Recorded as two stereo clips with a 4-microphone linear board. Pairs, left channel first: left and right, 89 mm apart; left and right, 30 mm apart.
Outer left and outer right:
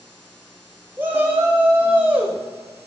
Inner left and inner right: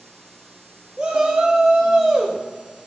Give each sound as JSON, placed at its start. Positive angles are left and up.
{"t": 1.0, "sound": "a shout", "side_deg": -20, "distance_m": 1.0}